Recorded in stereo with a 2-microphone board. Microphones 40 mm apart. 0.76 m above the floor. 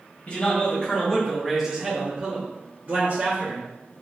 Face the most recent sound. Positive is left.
turn(degrees=-60)  # may be behind; listen again after turning